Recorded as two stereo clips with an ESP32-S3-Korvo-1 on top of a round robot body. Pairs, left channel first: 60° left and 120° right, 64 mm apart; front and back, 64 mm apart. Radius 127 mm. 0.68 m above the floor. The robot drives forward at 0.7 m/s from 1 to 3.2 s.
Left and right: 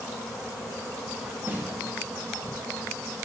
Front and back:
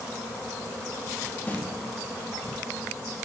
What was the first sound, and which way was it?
A snare drum, 65° right.